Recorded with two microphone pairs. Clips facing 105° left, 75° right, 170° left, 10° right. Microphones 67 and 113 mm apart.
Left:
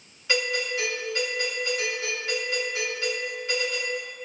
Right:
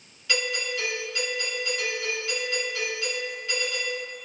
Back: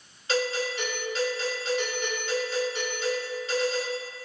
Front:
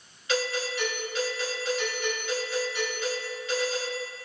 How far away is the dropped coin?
I don't hear a dropped coin.